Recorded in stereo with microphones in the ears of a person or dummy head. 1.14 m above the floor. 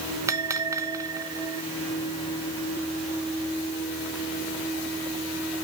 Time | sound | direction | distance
0.3 | a bell | 10° right (ahead or behind) | 0.8 m